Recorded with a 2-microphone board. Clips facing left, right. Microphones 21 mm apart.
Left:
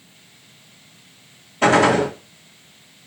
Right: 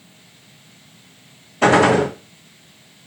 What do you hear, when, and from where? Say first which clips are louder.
1.6 s a gunshot: right 1 dB; 5° right (ahead or behind), 1.6 m